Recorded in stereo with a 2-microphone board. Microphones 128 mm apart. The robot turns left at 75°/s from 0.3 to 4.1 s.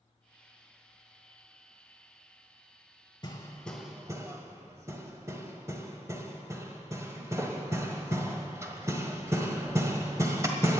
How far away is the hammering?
About 1.6 m.